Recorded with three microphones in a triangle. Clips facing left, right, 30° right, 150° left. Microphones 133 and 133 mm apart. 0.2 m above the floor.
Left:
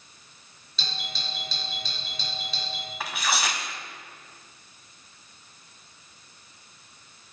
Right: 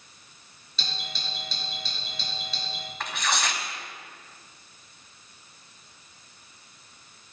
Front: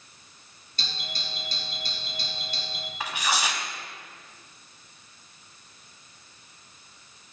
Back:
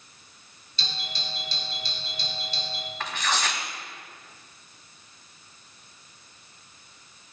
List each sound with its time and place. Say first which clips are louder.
0.8 s a doorbell: left 1 dB, back 1 dB; 5° right, 5 m
3.0 s tearing paper: even, front 1 dB; 20° left, 1.3 m